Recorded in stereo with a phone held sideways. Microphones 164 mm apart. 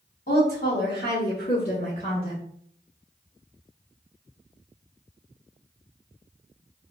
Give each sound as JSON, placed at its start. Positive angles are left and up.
{"t": 0.3, "sound": "a woman speaking", "side_deg": 55, "distance_m": 1.4}